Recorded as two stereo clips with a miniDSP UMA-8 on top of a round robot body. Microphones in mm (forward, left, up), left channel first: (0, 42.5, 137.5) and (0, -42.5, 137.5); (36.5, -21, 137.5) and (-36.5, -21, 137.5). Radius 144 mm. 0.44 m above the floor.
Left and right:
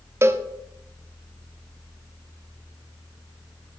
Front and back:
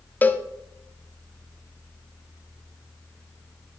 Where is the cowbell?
50° right, 0.7 m.